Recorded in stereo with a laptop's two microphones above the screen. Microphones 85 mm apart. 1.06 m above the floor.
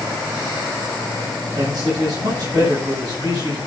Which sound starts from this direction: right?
A man speaking, at 1.6 s.